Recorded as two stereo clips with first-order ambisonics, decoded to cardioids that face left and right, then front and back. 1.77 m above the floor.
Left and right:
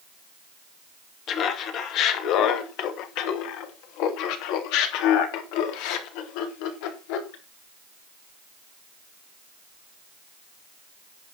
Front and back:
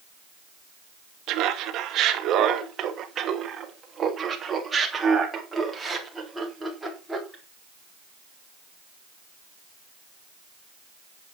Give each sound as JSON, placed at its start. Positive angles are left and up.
{"t": 1.3, "sound": "laughter", "azimuth_deg": 140, "distance_m": 2.5}